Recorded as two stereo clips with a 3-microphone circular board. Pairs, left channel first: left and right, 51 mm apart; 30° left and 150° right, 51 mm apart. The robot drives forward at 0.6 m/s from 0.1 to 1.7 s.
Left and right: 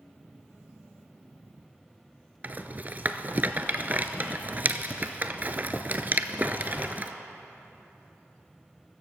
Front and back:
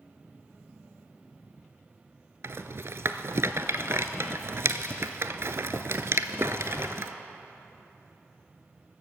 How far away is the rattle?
About 0.5 m.